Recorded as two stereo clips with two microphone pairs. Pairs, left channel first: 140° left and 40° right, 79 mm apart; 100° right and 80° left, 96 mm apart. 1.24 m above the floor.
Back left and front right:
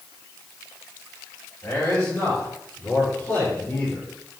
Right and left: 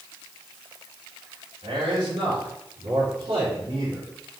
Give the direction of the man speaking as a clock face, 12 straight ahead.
9 o'clock.